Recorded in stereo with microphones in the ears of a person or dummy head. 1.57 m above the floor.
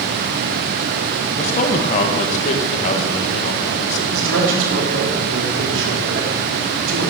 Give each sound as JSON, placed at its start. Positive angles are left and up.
{"t": 1.4, "sound": "a man speaking", "side_deg": 45, "distance_m": 1.7}
{"t": 4.1, "sound": "a man speaking", "side_deg": -85, "distance_m": 3.5}